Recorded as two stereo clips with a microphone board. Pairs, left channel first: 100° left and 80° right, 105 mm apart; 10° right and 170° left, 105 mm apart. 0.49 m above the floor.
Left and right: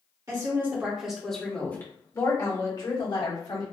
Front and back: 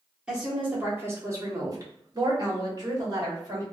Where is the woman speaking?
110° right, 1.3 m; by 3.6 s 120° left, 2 m.